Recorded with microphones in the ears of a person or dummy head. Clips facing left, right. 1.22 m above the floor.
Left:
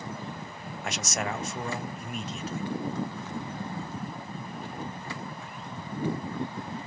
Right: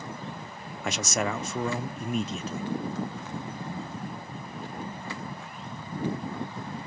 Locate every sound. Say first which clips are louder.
0.8 s a man speaking: right 4 dB; 65° right (ahead or behind), 0.5 m